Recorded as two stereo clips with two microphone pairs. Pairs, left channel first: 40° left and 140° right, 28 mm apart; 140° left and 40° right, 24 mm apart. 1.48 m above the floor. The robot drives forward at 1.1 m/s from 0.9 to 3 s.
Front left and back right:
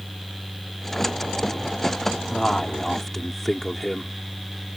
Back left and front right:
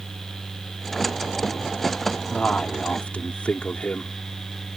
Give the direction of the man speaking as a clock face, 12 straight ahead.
8 o'clock.